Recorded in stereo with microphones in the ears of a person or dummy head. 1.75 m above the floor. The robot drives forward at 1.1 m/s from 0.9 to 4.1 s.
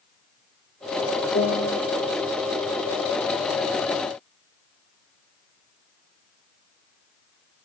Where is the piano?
40° left (ahead or behind), 1.7 m; by 1.8 s 45° left (ahead or behind), 1.5 m.